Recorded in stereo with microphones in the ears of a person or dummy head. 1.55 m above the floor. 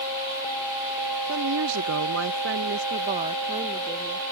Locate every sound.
1.3 s a woman speaking: 60° right (ahead or behind); by 4.2 s 20° right (ahead or behind)